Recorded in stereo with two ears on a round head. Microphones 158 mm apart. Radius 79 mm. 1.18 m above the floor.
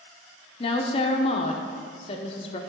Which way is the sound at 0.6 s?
35° left (ahead or behind).